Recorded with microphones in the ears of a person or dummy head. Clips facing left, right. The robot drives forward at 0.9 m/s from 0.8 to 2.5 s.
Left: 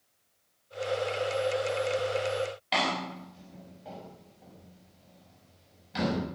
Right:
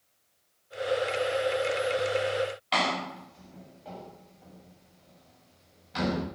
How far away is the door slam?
About 5 m.